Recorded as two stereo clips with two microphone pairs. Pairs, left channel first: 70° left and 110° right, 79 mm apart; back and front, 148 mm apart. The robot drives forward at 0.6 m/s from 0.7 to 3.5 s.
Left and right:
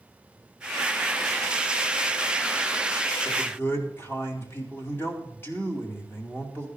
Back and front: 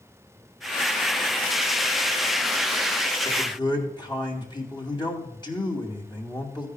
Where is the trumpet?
No trumpet in this recording.